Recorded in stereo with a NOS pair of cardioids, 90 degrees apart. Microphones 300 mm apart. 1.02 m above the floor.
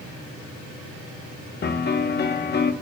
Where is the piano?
35° left, 0.9 m.